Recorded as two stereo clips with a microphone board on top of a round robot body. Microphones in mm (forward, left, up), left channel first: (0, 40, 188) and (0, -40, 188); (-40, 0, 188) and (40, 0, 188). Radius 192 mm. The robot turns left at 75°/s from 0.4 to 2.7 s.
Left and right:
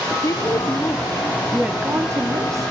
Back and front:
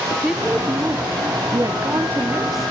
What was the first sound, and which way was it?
A woman speaking, 75° left.